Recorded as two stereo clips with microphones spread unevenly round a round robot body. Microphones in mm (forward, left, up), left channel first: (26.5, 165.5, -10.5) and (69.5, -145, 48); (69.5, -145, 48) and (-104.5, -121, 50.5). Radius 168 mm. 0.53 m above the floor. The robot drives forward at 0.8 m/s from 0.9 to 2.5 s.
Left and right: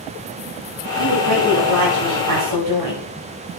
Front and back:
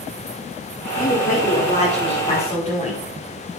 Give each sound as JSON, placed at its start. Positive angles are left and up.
{"t": 1.0, "sound": "a woman speaking", "azimuth_deg": -50, "distance_m": 5.5}